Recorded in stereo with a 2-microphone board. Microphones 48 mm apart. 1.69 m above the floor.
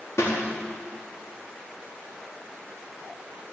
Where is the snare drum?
75° left (ahead or behind), 4 m.